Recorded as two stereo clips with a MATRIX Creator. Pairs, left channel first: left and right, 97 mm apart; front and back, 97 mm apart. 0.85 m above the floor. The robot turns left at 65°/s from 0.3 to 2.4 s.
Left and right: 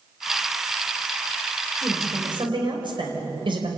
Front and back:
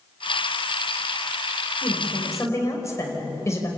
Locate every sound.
1.8 s a woman speaking: 20° right, 4.5 m; by 3.7 s 60° right, 4.5 m